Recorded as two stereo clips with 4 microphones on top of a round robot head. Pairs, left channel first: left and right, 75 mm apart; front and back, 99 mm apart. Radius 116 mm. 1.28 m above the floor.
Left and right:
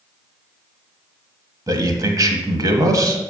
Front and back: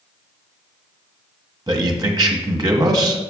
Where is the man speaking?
130° right, 1.2 m.